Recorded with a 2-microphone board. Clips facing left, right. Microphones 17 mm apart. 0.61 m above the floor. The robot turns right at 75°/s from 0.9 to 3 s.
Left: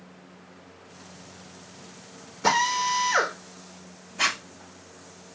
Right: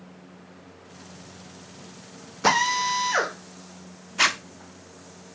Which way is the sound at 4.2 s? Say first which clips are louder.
Right 3 dB; 60° right (ahead or behind).